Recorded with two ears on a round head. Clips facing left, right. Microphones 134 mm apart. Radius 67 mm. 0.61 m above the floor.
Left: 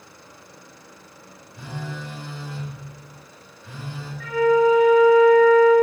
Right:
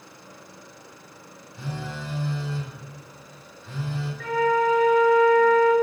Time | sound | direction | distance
1.6 | a phone buzzing | 15° left (ahead or behind) | 0.8 m
4.2 | a flute | 50° right (ahead or behind) | 0.7 m